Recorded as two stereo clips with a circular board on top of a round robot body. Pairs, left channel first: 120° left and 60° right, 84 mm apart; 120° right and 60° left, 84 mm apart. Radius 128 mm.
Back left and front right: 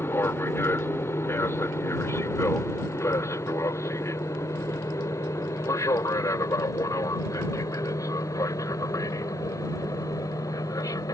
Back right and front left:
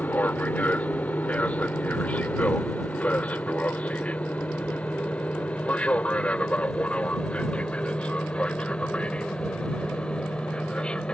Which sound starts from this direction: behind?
An aircraft, at 0.0 s.